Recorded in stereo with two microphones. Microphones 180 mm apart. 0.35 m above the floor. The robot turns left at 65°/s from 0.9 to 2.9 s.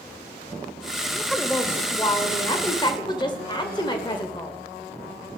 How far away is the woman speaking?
About 1.3 m.